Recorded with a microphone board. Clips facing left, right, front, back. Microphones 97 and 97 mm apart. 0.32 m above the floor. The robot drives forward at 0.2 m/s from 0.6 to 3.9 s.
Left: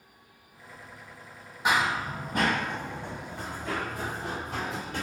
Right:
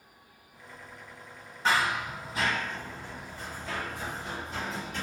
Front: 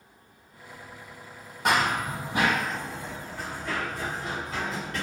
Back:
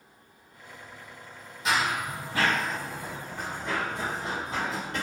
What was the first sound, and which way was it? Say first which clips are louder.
Running footsteps: left 1 dB, front 3 dB; 15° left.